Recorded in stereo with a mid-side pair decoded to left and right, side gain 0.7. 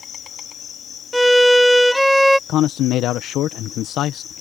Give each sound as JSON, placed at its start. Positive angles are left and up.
{"t": 0.0, "sound": "an insect", "azimuth_deg": 40}
{"t": 1.1, "sound": "a violin", "azimuth_deg": 0}
{"t": 2.5, "sound": "a man speaking", "azimuth_deg": 55}